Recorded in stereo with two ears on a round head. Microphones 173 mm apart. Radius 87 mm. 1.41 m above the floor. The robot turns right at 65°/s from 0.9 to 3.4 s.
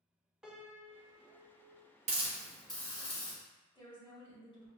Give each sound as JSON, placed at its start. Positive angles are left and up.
{"t": 0.4, "sound": "a piano", "azimuth_deg": -175, "distance_m": 0.8}
{"t": 2.1, "sound": "a hiss", "azimuth_deg": -35, "distance_m": 0.9}
{"t": 3.7, "sound": "a woman speaking", "side_deg": 25, "distance_m": 1.6}